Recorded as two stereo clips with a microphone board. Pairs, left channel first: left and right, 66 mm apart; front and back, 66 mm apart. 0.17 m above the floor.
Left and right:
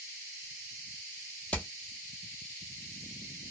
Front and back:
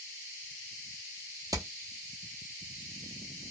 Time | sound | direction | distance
1.5 | hammering | 160° left | 1.1 m